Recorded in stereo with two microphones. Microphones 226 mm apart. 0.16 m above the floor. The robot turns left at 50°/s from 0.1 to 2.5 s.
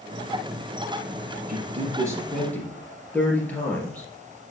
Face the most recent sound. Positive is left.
turn(degrees=5)  # may be behind; listen again after turning